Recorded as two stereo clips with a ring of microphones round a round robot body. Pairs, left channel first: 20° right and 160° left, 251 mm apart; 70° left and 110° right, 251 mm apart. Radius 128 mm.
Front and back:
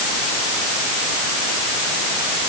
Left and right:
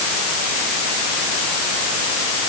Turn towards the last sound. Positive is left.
No sound to turn to.